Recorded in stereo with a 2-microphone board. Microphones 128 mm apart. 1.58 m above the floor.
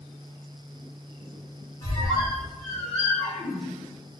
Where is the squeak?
30° left (ahead or behind), 1.4 m.